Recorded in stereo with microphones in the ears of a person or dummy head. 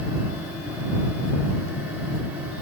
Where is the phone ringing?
I don't hear a phone ringing.